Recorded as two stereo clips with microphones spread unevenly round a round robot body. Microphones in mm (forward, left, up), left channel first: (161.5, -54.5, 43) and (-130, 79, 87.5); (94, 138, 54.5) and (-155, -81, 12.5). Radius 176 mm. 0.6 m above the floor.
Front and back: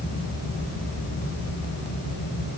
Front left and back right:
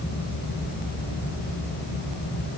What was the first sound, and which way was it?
Only background noise.